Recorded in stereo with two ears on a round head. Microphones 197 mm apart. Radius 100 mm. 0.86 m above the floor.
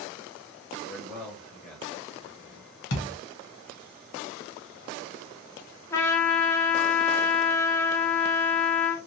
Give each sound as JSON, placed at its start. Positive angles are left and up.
{"t": 0.9, "sound": "a man speaking", "side_deg": 0, "distance_m": 1.2}
{"t": 2.9, "sound": "a thud", "side_deg": 55, "distance_m": 1.2}
{"t": 5.9, "sound": "a trumpet", "side_deg": 10, "distance_m": 0.9}